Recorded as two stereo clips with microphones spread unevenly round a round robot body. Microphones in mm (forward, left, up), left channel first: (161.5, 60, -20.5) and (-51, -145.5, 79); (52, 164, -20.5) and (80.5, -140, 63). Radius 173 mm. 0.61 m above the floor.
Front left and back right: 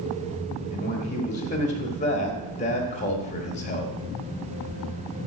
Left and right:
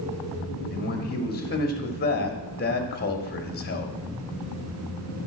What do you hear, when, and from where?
0.7 s a man speaking: 75° left, 1.6 m